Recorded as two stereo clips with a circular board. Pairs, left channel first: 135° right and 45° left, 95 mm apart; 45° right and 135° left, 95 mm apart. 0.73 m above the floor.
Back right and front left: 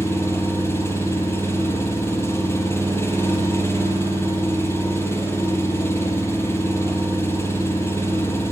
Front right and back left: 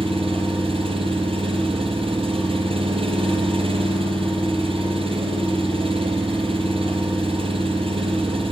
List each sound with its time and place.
0.0 s an engine running: 160° left, 7 m